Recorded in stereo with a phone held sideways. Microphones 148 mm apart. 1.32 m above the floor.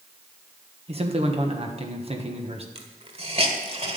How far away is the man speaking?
About 1.4 m.